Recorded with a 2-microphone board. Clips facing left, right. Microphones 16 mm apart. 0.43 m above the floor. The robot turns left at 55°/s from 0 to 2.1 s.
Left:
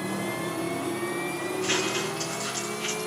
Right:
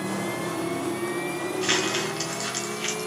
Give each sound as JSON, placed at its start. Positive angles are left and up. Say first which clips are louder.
{"t": 1.6, "sound": "crumpling", "louder": "right 3 dB", "side_deg": -55, "distance_m": 2.5}